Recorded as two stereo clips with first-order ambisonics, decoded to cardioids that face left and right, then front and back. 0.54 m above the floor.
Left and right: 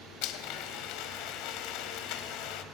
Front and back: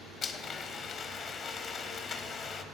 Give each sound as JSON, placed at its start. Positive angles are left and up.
{"t": 0.2, "sound": "a blender", "azimuth_deg": 65, "distance_m": 0.8}